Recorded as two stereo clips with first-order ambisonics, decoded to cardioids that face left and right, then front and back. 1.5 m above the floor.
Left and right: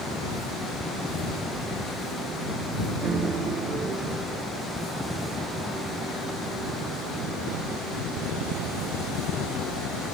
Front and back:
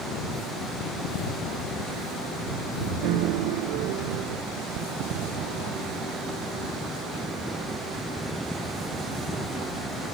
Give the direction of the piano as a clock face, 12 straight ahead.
5 o'clock.